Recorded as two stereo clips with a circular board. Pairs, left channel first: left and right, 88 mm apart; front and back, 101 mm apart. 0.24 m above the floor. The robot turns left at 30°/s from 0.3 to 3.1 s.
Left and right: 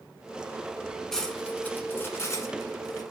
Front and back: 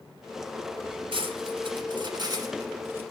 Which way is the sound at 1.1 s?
175° left.